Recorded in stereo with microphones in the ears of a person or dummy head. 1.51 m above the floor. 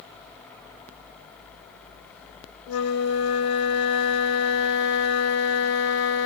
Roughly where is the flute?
Left.